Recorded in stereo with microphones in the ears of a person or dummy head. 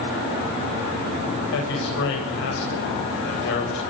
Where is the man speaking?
65° left (ahead or behind), 9 m.